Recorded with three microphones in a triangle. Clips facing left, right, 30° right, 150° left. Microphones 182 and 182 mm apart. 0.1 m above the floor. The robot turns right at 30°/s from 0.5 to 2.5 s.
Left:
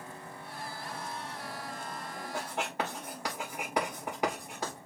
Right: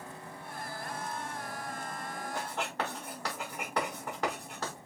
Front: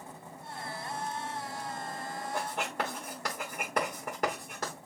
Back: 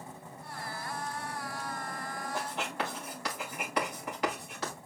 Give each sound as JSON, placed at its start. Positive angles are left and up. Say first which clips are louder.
{"t": 2.3, "sound": "writing", "louder": "left 2 dB, front 1 dB", "azimuth_deg": 10, "distance_m": 5.0}